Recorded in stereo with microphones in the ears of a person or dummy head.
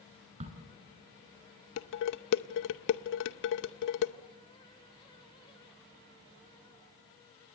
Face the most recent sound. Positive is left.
turn(degrees=65)  # may be behind; listen again after turning